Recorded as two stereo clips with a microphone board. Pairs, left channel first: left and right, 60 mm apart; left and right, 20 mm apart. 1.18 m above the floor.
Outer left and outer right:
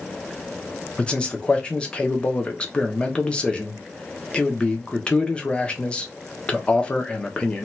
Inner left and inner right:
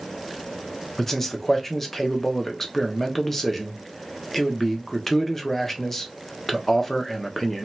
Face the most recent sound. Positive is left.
turn(degrees=20)  # may be behind; listen again after turning